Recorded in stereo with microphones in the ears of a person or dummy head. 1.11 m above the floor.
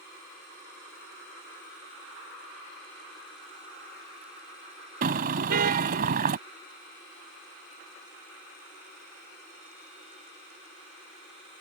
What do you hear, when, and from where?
5.0 s a car horn: 50° right (ahead or behind)